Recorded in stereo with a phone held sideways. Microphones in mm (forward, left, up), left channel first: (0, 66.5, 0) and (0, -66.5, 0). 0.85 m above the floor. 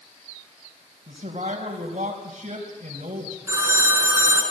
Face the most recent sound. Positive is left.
turn(degrees=-25)  # may be behind; listen again after turning